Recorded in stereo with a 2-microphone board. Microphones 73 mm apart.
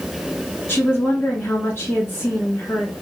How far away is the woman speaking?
About 1.4 m.